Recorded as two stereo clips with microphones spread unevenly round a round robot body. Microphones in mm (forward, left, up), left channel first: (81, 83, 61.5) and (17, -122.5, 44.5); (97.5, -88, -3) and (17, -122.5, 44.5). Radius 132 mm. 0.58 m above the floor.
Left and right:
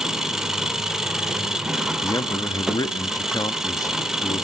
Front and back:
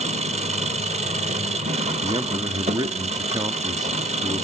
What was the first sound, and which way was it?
An engine running, 165° left.